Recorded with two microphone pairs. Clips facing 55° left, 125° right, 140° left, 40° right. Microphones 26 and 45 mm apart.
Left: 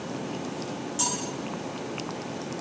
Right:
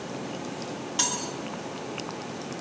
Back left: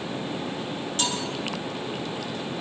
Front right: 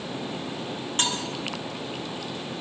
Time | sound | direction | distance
1.0 | cutlery clinking | 85° right | 3.5 m